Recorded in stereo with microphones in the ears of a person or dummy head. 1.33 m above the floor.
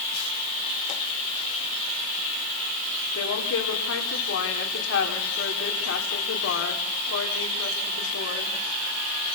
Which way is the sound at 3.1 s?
90° left.